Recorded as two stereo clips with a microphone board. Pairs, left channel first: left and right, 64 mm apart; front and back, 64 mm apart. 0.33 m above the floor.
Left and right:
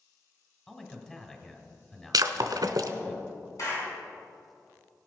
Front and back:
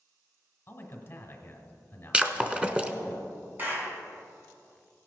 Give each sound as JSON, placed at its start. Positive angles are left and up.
{"t": 0.7, "sound": "a man speaking", "azimuth_deg": 20, "distance_m": 1.6}
{"t": 2.1, "sound": "breaking glass", "azimuth_deg": -105, "distance_m": 0.7}
{"t": 3.6, "sound": "a clap", "azimuth_deg": 120, "distance_m": 3.0}